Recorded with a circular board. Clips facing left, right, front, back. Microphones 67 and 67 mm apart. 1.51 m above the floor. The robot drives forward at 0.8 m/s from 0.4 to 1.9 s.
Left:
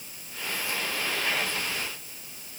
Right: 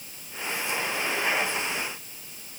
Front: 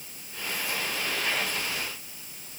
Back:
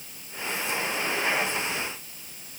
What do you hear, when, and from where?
Only background noise.